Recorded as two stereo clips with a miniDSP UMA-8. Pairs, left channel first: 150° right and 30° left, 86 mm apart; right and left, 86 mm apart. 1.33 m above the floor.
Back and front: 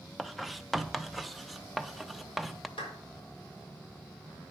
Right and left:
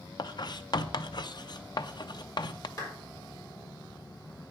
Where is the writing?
60° right, 0.6 m.